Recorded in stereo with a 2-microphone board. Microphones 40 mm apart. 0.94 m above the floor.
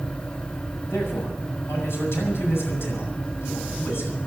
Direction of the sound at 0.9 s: 80° left.